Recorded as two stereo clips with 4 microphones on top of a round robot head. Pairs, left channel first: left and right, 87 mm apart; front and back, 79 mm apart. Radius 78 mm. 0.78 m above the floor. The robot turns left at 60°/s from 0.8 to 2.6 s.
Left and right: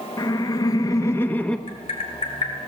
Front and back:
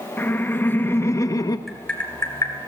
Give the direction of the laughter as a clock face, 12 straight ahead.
10 o'clock.